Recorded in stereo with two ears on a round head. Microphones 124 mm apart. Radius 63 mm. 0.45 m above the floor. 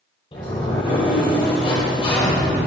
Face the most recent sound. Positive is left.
turn(degrees=35)  # may be behind; listen again after turning